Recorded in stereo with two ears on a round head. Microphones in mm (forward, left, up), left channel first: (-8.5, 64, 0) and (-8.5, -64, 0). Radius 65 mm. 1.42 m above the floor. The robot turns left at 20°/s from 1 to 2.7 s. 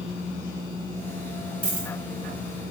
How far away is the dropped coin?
About 1.7 m.